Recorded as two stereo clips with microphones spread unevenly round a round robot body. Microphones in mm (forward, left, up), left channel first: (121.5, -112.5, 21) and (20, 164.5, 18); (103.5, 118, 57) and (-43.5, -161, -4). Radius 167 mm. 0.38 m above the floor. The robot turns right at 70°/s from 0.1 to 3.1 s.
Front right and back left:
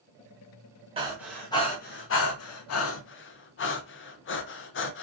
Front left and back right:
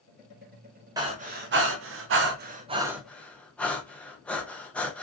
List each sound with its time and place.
1.0 s breathing: 175° left, 0.5 m; by 5.0 s 35° right, 0.5 m